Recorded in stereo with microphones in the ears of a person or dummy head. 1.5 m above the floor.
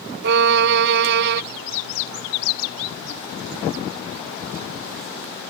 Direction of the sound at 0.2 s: 60° right (ahead or behind).